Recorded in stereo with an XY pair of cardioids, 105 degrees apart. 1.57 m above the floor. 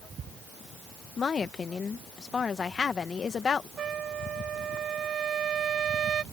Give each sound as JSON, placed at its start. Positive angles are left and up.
{"t": 1.2, "sound": "a woman speaking", "azimuth_deg": 40}
{"t": 3.8, "sound": "a trumpet", "azimuth_deg": -55}